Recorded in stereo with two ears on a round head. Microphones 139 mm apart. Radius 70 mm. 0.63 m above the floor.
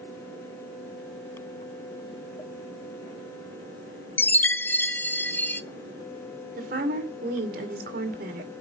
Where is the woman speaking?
60° right (ahead or behind), 2.5 m.